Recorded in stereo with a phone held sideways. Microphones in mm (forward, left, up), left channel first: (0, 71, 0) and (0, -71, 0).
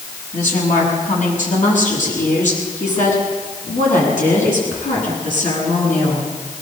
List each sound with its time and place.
0.3 s a woman speaking: 70° left (ahead or behind), 7 m